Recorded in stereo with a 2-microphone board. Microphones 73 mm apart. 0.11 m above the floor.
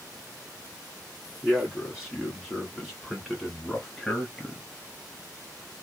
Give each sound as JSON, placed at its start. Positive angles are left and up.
{"t": 1.4, "sound": "a man speaking", "side_deg": -5, "distance_m": 1.6}